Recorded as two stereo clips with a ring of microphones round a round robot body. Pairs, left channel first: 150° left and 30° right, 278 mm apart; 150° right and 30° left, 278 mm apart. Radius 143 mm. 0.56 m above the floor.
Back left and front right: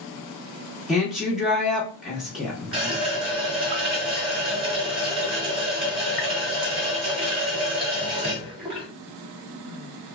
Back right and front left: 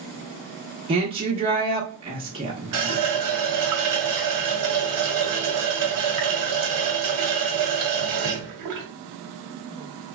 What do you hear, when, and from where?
0.9 s a woman speaking: 55° left, 0.8 m
2.7 s a running tap: 40° left, 1.0 m